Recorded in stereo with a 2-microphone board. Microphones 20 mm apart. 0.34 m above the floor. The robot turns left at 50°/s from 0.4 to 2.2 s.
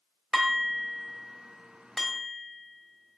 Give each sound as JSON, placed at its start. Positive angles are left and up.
{"t": 0.3, "sound": "dishes clattering", "side_deg": -30, "distance_m": 0.9}